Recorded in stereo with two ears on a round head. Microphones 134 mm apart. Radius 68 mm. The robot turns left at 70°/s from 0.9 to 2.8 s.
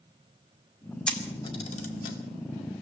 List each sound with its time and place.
1.1 s a camera shutter: 5° left (ahead or behind), 2 m; by 2.2 s 75° left (ahead or behind), 2 m